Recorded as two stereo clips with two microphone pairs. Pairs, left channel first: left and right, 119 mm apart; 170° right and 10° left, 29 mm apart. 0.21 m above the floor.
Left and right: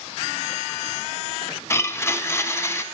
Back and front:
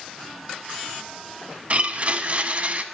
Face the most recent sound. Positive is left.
turn(degrees=30)